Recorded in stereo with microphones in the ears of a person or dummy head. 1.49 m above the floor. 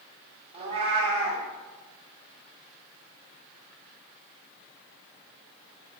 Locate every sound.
0.5 s a cat meowing: 35° right (ahead or behind), 1.4 m